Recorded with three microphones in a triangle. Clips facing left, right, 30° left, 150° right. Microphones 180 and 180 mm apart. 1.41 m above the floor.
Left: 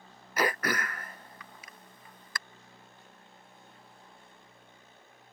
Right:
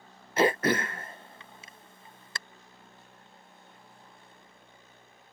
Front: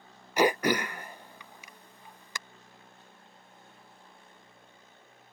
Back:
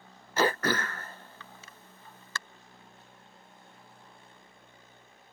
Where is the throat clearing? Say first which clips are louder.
Right 6 dB, front 3 dB; 40° right.